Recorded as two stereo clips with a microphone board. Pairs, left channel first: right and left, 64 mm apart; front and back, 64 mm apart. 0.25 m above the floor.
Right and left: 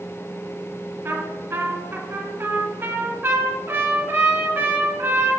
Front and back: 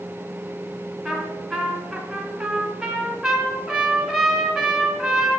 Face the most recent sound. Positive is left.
turn(degrees=105)